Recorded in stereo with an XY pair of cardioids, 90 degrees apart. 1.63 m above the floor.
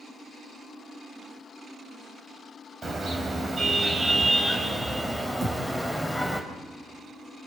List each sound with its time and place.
2.8 s a car horn: 45° right, 5 m; by 6.4 s 5° right, 4.5 m
5.4 s a thud: 45° right, 8.5 m